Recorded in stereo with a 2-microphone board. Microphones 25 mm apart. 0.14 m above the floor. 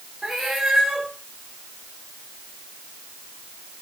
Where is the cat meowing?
20° right (ahead or behind), 7.5 m.